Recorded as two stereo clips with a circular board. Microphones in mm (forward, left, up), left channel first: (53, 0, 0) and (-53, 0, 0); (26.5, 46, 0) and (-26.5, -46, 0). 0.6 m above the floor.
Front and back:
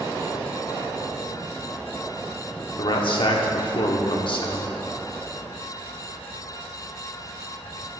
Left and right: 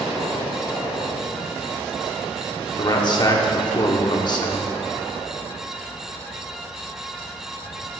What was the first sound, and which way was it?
A man speaking, 25° left.